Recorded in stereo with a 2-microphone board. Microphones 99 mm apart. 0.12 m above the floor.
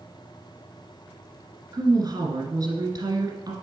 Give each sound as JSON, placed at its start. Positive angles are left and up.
{"t": 1.7, "sound": "a woman speaking", "side_deg": -40, "distance_m": 1.9}